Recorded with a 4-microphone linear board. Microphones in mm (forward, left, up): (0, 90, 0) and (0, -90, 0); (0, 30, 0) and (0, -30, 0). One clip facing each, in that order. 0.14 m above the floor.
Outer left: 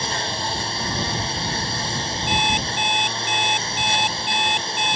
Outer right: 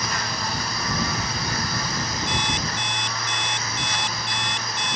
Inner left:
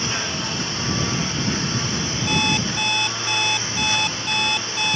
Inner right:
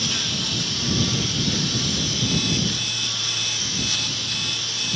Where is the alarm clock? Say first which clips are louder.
Outer left 3 dB, inner left 5 dB; 65° left (ahead or behind).